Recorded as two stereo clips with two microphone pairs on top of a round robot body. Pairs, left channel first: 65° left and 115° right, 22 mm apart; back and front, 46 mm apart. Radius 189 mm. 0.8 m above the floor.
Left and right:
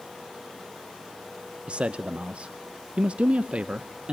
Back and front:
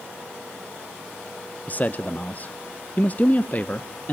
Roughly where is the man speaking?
Behind right.